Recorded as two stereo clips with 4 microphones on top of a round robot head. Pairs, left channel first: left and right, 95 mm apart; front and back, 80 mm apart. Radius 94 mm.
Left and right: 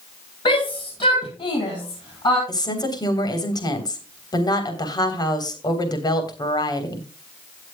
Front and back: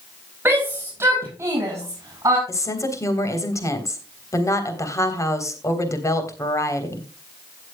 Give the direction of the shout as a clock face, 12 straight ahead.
8 o'clock.